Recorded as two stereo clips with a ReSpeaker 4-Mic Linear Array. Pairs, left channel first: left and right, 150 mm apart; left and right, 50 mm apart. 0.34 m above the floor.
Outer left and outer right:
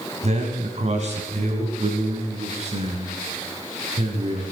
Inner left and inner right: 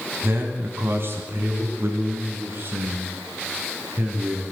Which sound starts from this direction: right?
A man speaking, at 0.2 s.